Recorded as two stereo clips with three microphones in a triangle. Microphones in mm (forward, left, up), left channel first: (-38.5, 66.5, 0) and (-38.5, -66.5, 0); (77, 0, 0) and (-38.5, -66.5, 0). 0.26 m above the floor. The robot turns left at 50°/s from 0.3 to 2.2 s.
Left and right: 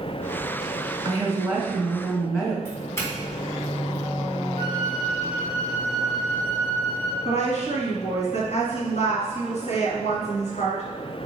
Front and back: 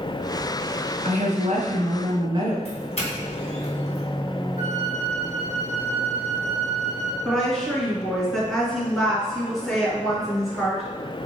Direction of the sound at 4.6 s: 45° left.